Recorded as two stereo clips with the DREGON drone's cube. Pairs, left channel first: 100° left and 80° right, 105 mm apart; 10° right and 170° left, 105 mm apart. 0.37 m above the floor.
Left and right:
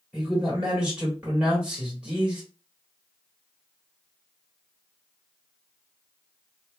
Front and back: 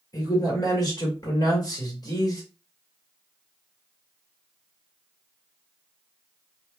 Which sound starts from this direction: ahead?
A man speaking, at 0.1 s.